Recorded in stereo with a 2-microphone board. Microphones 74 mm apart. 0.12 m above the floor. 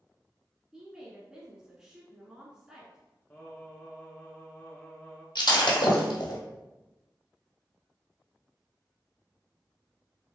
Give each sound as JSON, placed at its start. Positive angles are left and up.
{"t": 0.7, "sound": "a woman speaking", "side_deg": -10, "distance_m": 1.2}
{"t": 3.3, "sound": "singing", "side_deg": 25, "distance_m": 1.1}
{"t": 5.3, "sound": "breaking glass", "side_deg": 75, "distance_m": 1.3}